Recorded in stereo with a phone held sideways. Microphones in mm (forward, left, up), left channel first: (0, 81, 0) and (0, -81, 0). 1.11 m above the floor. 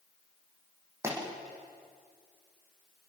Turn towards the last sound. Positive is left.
turn(degrees=-15)  # may be behind; listen again after turning